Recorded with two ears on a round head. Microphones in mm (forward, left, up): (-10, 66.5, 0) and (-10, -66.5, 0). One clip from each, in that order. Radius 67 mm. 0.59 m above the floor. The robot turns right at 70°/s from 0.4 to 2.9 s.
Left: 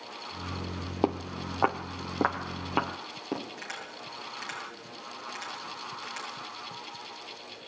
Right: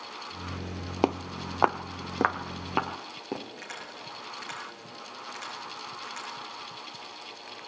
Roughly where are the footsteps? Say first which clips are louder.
Right 2 dB; right.